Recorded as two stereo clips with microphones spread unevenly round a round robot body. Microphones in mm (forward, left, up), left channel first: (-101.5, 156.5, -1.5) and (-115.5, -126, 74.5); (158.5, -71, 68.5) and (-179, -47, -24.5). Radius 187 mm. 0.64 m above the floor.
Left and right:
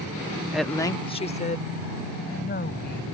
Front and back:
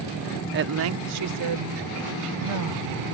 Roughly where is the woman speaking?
Behind.